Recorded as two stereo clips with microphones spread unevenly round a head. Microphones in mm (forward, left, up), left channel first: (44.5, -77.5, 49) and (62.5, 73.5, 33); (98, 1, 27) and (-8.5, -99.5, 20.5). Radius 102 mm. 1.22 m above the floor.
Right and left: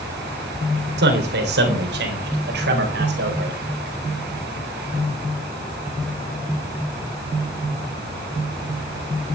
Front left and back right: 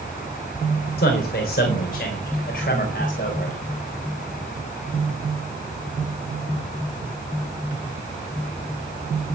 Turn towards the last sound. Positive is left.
turn(degrees=95)